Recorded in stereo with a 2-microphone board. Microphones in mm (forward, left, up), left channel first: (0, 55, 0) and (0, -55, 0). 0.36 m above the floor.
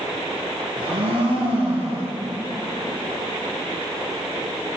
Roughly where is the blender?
Right.